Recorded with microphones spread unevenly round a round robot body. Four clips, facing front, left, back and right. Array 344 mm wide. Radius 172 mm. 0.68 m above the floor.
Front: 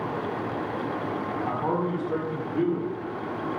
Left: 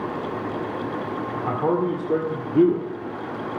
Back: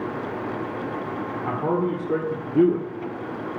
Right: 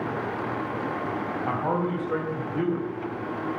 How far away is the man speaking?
About 2 m.